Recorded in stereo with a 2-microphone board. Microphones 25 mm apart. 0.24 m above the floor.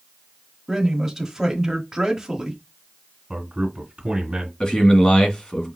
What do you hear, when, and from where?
0.7 s a man speaking: 15° right (ahead or behind), 1.3 m
3.3 s a man speaking: 40° right (ahead or behind), 1.8 m
4.6 s a man speaking: 30° left (ahead or behind), 1.9 m